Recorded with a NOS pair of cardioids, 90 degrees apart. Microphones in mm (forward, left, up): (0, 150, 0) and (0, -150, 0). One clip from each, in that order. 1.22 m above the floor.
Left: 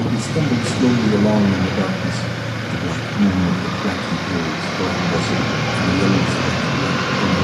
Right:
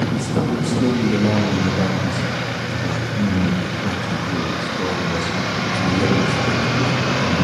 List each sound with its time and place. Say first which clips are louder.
0.1 s a man speaking: left 1 dB; 15° left, 2.5 m